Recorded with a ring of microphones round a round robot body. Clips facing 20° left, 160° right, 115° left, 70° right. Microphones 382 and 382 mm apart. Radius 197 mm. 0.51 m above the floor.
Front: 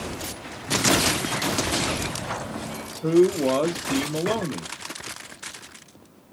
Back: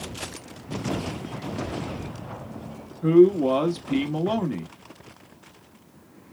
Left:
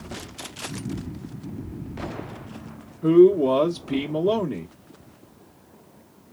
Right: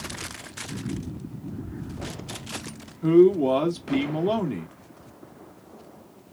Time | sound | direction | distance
3.0 | a man speaking | 125° right | 1.0 m